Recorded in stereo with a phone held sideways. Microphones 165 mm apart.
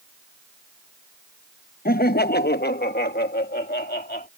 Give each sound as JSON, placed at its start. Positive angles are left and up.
{"t": 1.9, "sound": "laughter", "side_deg": 60}